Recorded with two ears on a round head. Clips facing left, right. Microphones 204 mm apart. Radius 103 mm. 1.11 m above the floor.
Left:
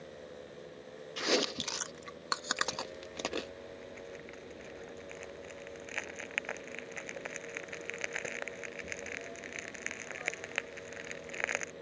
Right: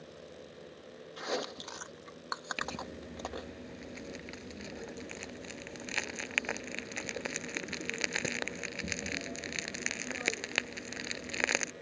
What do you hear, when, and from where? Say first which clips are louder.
1.2 s chewing: left 5 dB; 40° left (ahead or behind)
2.6 s crumpling: even; 60° right (ahead or behind)